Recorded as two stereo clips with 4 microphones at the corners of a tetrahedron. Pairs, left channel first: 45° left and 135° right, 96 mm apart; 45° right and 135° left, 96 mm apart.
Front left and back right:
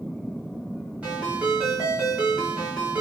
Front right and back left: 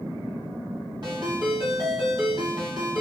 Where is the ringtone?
155° left, 1.3 m.